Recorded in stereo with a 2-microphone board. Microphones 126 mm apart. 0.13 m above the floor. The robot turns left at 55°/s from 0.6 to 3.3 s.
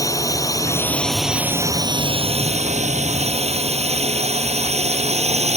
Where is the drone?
25° left (ahead or behind); by 5.6 s 60° right (ahead or behind).